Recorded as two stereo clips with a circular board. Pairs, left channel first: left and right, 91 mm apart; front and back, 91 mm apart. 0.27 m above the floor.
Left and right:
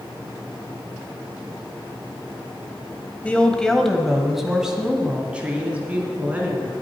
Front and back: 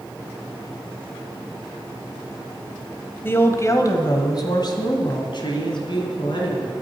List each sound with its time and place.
3.2 s a woman speaking: 30° left, 1.2 m; by 6.7 s 20° right, 3 m